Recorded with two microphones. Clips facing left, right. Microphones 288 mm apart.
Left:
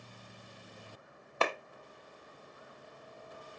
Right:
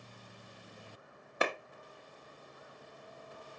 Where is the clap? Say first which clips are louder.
Left 1 dB; 15° right (ahead or behind), 0.9 m.